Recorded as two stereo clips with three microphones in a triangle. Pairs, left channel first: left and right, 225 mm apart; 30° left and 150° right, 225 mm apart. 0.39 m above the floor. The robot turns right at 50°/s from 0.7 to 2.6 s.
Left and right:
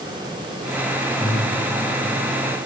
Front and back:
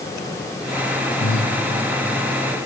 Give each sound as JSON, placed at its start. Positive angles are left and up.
{"t": 1.2, "sound": "breathing", "azimuth_deg": -5, "distance_m": 4.0}